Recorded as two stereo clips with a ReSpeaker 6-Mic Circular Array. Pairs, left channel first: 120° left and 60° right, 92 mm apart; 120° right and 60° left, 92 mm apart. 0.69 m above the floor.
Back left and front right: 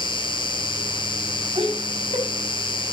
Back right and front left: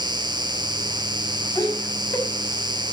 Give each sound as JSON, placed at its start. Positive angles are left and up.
{"t": 0.0, "sound": "an insect", "azimuth_deg": 95, "distance_m": 1.7}
{"t": 1.6, "sound": "laughter", "azimuth_deg": -70, "distance_m": 5.5}